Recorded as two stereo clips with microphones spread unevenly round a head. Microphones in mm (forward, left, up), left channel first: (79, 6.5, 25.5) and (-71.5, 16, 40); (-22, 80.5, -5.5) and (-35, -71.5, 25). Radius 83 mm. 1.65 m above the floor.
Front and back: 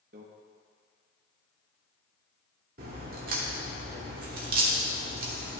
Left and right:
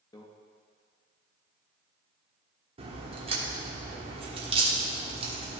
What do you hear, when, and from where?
0.1 s a microwave: 160° left, 1.0 m
2.8 s a crack: 145° right, 1.4 m